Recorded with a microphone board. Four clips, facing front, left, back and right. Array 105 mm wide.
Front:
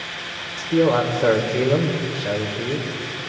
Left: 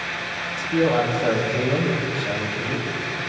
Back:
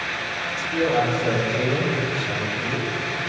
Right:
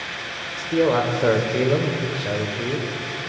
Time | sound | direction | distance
0.6 | a man speaking | 35° right | 2 m